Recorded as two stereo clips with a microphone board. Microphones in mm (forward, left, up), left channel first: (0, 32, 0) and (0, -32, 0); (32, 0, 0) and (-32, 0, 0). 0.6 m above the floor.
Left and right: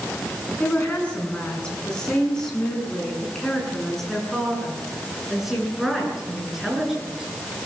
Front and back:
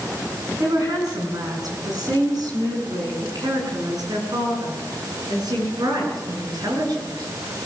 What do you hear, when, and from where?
0.6 s a woman speaking: 160° left, 7 m; by 7.3 s 175° right, 10 m